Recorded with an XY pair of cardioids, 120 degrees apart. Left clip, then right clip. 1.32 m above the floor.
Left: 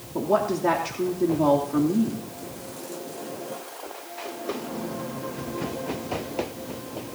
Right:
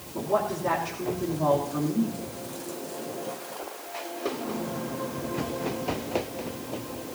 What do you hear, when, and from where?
0.1 s a woman speaking: 50° left, 3 m